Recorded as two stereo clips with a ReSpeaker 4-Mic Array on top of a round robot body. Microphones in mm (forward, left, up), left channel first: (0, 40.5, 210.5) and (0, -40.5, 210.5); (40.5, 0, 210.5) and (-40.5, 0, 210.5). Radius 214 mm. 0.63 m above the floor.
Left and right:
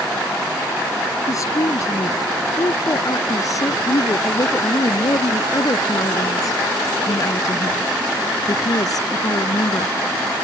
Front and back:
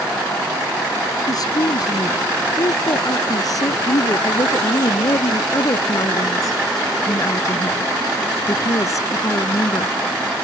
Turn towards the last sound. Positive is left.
turn(degrees=50)